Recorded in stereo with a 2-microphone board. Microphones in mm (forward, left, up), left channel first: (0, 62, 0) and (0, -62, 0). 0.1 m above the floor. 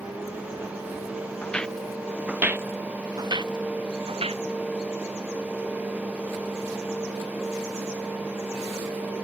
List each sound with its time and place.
1.4 s footsteps: 10° left (ahead or behind); by 4.4 s 60° right (ahead or behind)